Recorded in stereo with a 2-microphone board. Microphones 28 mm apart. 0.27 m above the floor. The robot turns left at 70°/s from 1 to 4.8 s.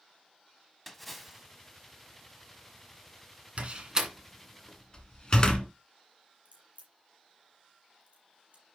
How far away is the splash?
About 1.1 m.